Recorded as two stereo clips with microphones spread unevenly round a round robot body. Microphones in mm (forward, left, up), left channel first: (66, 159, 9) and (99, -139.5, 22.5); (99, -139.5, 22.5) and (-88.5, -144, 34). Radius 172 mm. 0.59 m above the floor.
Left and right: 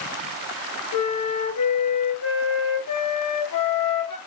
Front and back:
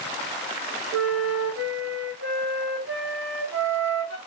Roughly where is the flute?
Behind left.